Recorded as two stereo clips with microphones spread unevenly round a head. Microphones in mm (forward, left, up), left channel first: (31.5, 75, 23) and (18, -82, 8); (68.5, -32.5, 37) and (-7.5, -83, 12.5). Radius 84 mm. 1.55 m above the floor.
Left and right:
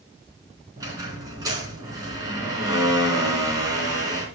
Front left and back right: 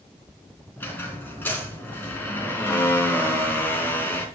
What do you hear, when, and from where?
0.8 s a squeak: 25° right, 4 m